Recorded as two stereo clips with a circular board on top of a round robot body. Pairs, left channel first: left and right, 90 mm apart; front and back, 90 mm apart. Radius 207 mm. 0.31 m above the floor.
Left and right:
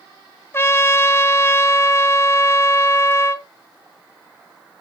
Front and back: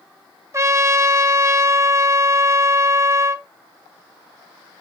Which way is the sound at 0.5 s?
140° left.